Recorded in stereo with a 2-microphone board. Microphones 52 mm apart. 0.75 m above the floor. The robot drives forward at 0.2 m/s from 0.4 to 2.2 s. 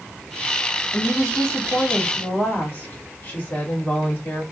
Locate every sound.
0.9 s a woman speaking: 40° left (ahead or behind), 1.3 m; by 4.4 s 35° left (ahead or behind), 1.5 m